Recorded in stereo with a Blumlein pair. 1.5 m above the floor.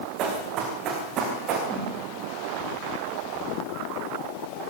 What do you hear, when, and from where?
0.2 s running footsteps: 35° right, 5 m
1.7 s a whoosh: 15° right, 9.5 m